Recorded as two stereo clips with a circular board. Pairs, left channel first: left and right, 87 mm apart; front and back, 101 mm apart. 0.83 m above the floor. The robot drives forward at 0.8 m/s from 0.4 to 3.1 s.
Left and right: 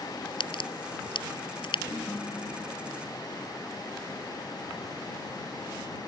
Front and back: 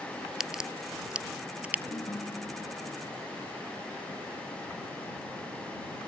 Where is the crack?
95° left; by 1.8 s 105° left.